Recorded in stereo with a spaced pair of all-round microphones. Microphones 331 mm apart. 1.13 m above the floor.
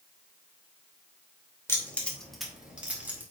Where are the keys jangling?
10° left (ahead or behind), 2.5 m; by 3.2 s 5° right (ahead or behind), 3.5 m.